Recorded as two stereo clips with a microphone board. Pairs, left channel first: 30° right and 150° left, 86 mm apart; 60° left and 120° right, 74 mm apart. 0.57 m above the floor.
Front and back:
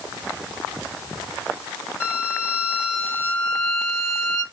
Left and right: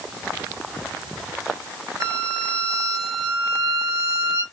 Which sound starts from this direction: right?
A violin, at 2.0 s.